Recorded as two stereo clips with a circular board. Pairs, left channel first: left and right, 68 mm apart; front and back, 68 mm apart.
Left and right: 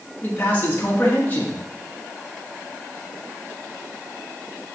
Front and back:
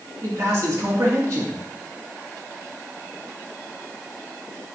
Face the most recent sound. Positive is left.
turn(degrees=150)